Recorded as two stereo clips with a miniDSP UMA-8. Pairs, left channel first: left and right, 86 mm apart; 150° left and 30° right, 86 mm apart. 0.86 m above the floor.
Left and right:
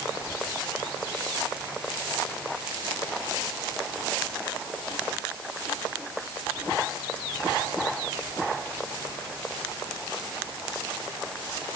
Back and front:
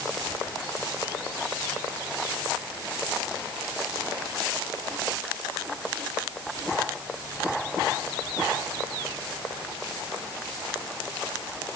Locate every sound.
Only background noise.